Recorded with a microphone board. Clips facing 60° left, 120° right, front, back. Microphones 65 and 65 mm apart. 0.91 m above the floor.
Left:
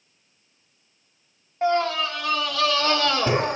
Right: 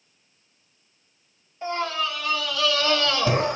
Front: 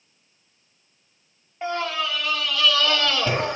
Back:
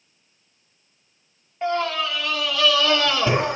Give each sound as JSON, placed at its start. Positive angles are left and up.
{"t": 1.6, "sound": "a scream", "azimuth_deg": 85, "distance_m": 2.0}